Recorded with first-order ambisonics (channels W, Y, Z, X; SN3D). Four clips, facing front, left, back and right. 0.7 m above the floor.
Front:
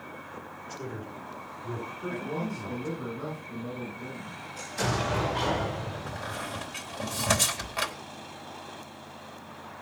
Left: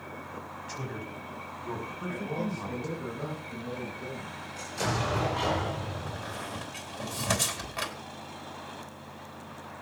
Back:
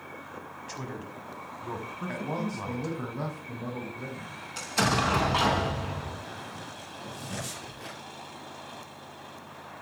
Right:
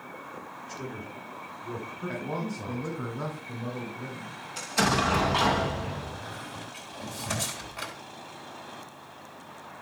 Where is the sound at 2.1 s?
170° right, 6.5 m.